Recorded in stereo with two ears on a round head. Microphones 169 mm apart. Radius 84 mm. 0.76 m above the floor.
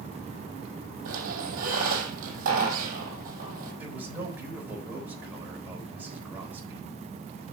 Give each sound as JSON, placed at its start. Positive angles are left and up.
{"t": 1.1, "sound": "a squeak", "side_deg": -45, "distance_m": 4.5}
{"t": 3.8, "sound": "a man speaking", "side_deg": -10, "distance_m": 4.0}